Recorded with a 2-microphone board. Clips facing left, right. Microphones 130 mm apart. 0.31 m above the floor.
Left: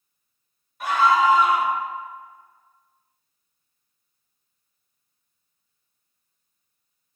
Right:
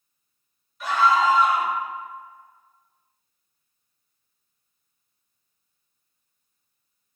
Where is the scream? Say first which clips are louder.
Left 1 dB; 60° left (ahead or behind), 2 m.